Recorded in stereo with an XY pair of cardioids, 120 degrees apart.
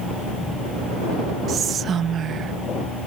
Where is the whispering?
50° right.